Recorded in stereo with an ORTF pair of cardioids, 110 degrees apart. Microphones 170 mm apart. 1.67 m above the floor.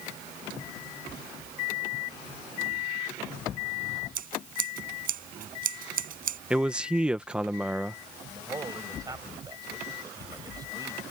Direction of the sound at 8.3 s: 20° right.